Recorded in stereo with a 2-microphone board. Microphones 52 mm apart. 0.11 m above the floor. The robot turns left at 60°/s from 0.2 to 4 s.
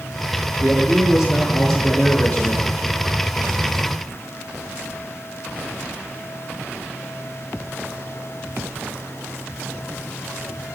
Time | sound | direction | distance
0.6 | a man speaking | 125° right | 1.4 m